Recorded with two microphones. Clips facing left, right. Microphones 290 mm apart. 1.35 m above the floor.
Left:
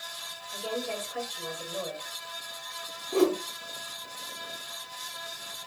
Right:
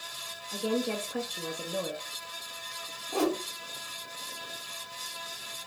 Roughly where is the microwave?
I don't hear a microwave.